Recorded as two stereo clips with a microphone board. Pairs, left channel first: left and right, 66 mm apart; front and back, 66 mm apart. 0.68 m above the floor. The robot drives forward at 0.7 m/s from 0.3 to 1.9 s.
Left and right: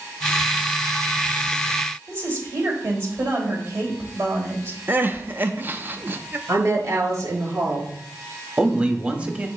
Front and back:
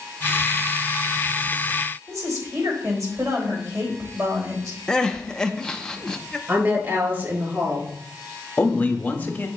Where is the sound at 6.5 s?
125° right, 3.5 m.